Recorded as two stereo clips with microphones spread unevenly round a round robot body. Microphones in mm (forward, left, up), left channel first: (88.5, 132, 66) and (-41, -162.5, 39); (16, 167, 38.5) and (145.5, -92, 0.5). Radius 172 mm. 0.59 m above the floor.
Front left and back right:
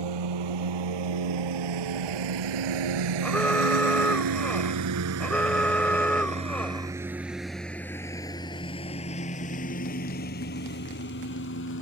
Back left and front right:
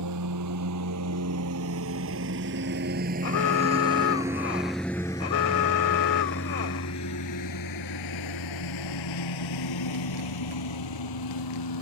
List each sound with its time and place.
0.0 s a lawn mower: 110° right; by 11.8 s 125° left
3.2 s an alarm: 150° left